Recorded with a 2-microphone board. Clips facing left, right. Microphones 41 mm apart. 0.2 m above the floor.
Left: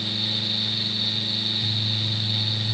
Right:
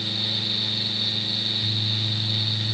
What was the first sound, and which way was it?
Only background noise.